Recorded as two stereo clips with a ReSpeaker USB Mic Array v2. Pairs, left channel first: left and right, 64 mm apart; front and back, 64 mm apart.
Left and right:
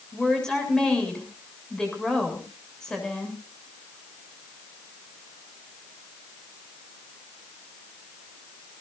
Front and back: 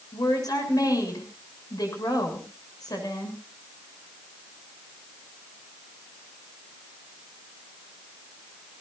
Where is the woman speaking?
10° left, 7 m.